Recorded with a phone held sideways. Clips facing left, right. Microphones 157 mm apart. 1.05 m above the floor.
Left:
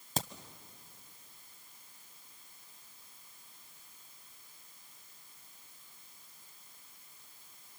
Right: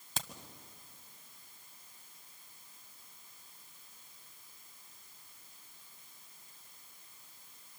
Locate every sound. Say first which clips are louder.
0.2 s a crack: left 7 dB; 40° left (ahead or behind), 1.1 m